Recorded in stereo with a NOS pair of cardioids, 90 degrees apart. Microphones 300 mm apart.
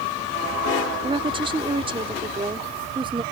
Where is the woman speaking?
15° right.